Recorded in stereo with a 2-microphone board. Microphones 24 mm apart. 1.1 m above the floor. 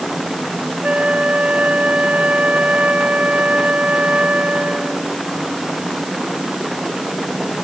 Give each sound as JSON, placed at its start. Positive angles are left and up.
{"t": 0.8, "sound": "a flute", "side_deg": -70}